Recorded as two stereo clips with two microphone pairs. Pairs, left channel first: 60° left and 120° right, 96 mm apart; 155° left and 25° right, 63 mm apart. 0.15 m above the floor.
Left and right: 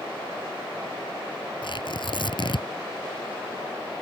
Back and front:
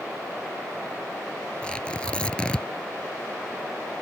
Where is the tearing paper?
85° left.